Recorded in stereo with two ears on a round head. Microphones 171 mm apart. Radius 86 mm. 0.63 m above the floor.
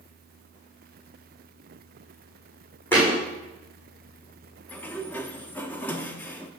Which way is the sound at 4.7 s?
10° left (ahead or behind).